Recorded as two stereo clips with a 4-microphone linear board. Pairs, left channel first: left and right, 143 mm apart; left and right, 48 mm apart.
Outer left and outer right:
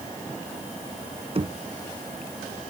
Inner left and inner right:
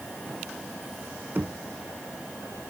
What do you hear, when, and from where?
1.4 s knocking: 45° right (ahead or behind)